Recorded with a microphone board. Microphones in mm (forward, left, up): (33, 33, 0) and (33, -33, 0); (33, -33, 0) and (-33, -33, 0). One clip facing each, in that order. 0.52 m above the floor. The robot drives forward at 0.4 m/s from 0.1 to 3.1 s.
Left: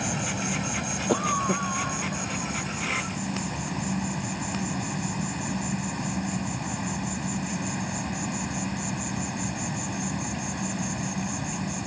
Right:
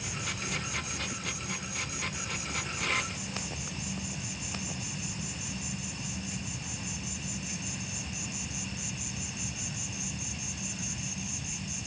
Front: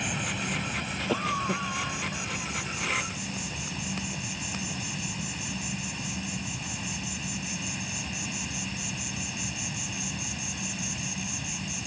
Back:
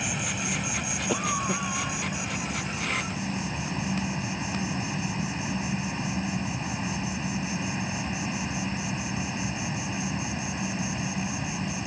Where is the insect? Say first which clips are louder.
Left 8 dB, back 1 dB; 90° left; by 11.9 s 120° left.